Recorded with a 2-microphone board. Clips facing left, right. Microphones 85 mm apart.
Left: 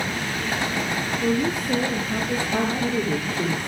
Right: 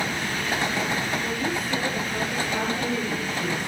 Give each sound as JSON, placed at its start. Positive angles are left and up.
{"t": 1.2, "sound": "a woman speaking", "side_deg": 65, "distance_m": 6.5}
{"t": 2.5, "sound": "a woman speaking", "side_deg": 60, "distance_m": 9.0}